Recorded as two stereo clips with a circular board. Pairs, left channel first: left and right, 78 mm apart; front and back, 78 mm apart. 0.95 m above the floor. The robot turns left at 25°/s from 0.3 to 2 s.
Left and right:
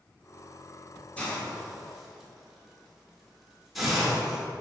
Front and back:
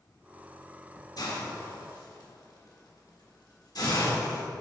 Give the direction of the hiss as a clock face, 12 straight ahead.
11 o'clock.